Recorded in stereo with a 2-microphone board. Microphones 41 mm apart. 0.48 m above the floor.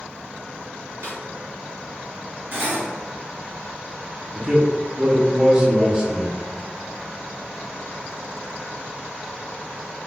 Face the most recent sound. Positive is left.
turn(degrees=-20)  # may be behind; listen again after turning